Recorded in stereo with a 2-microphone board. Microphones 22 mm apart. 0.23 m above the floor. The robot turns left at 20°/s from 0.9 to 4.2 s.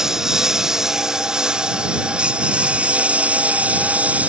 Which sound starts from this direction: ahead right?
A lawn mower, at 0.0 s.